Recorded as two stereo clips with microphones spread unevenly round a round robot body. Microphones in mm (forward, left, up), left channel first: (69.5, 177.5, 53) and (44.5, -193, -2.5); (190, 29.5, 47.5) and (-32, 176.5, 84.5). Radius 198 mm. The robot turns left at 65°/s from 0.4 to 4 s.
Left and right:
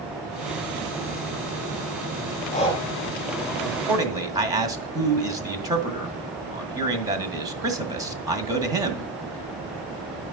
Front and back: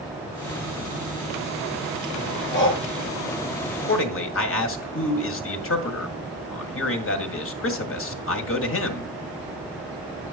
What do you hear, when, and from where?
2.5 s breathing: 20° left, 3.5 m; by 2.8 s straight ahead, 3.5 m
3.9 s a man speaking: 10° right, 1.8 m; by 9.1 s 20° right, 1.8 m